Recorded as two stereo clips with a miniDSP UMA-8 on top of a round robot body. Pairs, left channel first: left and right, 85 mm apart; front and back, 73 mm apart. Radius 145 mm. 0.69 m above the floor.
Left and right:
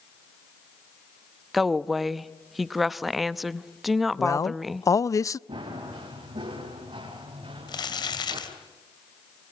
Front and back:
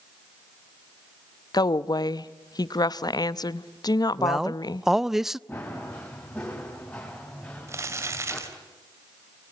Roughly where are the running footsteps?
Right.